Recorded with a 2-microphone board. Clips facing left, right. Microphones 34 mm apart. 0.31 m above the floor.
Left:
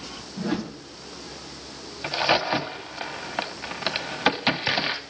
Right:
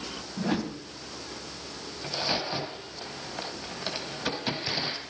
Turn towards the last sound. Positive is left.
turn(degrees=50)  # may be behind; listen again after turning